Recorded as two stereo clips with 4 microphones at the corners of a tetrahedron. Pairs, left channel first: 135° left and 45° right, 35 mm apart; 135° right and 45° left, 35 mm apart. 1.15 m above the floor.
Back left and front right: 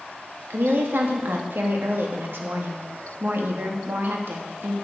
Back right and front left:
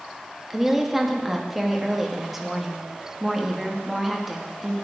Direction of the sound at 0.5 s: 40° right.